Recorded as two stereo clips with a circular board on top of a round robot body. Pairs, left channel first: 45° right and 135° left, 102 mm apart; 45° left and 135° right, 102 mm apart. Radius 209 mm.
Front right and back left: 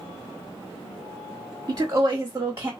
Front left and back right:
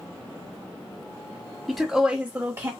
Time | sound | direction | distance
1.7 | a woman speaking | 135° left | 1.4 m